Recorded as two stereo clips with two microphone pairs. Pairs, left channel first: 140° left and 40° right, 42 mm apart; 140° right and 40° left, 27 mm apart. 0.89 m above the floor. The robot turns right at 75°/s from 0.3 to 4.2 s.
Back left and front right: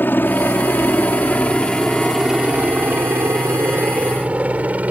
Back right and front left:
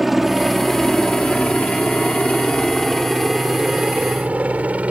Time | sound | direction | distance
0.0 | a helicopter | 120° left | ?